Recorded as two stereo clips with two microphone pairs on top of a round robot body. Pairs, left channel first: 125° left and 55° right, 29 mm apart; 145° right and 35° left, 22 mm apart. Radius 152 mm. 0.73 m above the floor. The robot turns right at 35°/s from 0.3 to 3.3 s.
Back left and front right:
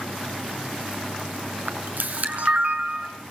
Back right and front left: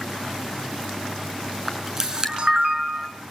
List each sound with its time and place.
1.7 s a camera shutter: 45° right, 6 m; by 3.1 s 5° left, 6 m